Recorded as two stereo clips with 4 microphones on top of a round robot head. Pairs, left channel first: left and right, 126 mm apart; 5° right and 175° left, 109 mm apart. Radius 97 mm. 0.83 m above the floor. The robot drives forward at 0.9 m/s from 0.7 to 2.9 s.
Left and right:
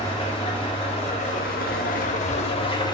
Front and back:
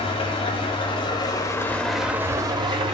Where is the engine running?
30° left, 1.4 m; by 2.9 s 140° left, 1.1 m.